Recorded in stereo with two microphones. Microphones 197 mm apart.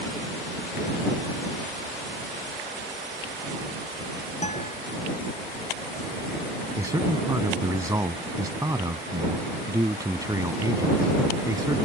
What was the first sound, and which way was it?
A guitar, 35° left (ahead or behind).